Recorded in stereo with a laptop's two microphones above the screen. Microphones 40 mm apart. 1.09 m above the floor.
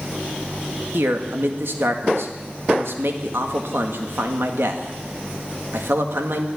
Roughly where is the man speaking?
Right.